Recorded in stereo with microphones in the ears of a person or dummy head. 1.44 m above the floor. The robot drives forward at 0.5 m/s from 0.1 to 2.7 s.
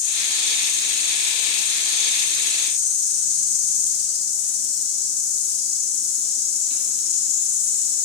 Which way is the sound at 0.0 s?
40° left (ahead or behind).